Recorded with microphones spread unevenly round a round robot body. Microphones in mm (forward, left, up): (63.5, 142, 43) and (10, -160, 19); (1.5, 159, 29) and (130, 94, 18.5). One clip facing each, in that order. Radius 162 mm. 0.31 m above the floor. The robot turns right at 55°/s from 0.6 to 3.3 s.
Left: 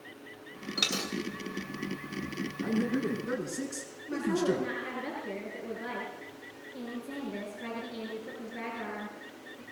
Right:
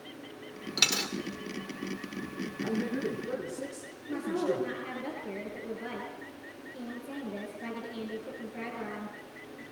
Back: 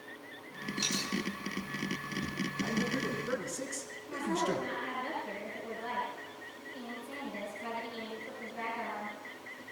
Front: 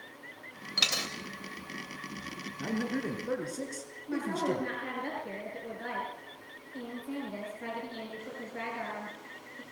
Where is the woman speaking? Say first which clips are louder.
Left 2 dB, front 2 dB; 5° right, 7.5 m.